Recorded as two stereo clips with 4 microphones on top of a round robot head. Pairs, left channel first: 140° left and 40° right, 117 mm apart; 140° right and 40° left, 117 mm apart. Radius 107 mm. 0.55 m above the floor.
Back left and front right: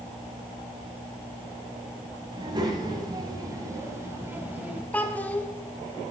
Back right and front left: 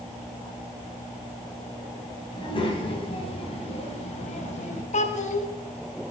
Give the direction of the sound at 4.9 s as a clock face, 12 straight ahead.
5 o'clock.